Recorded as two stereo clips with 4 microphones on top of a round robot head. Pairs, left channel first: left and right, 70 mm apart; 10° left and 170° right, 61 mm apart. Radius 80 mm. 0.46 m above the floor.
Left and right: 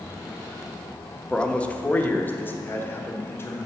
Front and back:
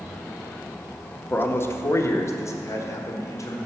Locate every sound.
1.3 s a man speaking: 20° left, 0.8 m; by 3.6 s 40° left, 1.8 m